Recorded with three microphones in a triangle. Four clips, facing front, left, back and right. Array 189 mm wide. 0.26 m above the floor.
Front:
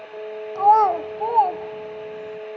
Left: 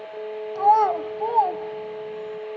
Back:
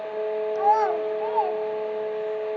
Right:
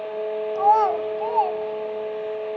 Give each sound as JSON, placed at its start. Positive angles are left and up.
{"t": 0.6, "sound": "a child speaking", "azimuth_deg": -10, "distance_m": 0.7}